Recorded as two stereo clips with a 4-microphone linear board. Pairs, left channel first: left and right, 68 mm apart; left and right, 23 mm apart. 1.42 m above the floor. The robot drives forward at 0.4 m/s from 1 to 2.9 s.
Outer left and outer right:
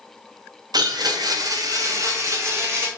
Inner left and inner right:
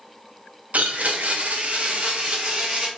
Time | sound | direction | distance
0.7 | a blender | 80° right | 0.6 m